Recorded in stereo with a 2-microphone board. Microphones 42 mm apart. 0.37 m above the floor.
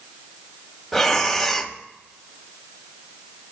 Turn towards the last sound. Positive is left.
turn(degrees=5)  # may be behind; listen again after turning